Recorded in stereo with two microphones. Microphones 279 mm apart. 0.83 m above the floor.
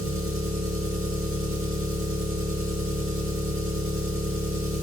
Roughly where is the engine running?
Right.